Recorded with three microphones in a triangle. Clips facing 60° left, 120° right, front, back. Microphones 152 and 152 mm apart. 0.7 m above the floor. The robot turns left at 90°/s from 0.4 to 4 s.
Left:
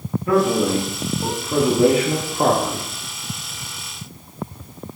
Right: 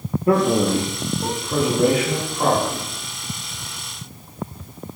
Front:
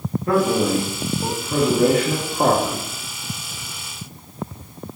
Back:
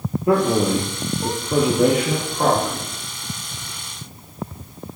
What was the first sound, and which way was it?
A man speaking, 125° right.